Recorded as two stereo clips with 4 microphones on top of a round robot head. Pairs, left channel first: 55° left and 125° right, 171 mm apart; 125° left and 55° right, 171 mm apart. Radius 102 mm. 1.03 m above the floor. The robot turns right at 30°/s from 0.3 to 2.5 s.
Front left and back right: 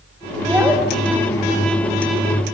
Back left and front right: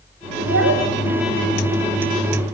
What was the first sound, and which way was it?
A child speaking, 50° right.